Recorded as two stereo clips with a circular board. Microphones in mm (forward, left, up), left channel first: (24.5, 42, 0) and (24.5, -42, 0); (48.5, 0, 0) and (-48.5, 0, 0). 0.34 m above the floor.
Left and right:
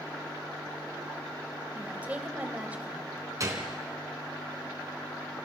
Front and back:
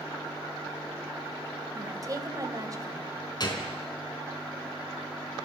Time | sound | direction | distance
1.8 | a woman speaking | 155° right | 1.8 m
3.4 | a gunshot | 45° right | 3.5 m